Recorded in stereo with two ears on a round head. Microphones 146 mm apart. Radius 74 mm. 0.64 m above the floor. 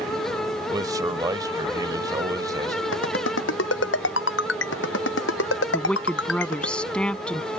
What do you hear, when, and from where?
0.7 s a man speaking: 25° right (ahead or behind)
2.9 s a ringtone: 80° left
5.7 s a woman speaking: 5° left (ahead or behind)